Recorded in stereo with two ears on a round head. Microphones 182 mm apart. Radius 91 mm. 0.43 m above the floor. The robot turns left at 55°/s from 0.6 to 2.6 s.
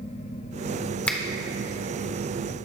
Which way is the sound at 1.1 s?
5° left (ahead or behind).